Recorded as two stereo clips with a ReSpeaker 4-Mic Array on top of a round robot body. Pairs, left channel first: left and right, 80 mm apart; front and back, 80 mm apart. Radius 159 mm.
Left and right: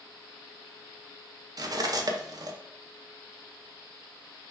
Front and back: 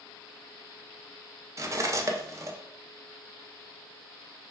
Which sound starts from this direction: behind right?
Cutlery clinking, at 1.6 s.